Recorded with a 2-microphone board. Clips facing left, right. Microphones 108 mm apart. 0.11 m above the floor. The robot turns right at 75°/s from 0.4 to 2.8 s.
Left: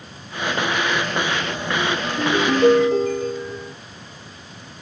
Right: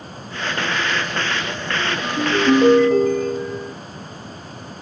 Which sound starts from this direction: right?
A ringtone, at 2.0 s.